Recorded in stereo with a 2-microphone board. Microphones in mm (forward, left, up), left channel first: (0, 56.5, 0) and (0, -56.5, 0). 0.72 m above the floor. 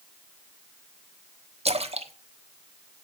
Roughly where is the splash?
Right.